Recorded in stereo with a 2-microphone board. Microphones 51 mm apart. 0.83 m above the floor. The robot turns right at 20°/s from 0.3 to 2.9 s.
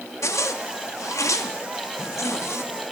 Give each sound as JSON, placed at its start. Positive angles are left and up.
{"t": 0.2, "sound": "a zipper", "azimuth_deg": 70, "distance_m": 0.7}